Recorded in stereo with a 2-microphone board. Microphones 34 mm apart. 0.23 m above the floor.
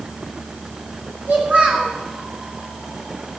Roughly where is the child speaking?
Right.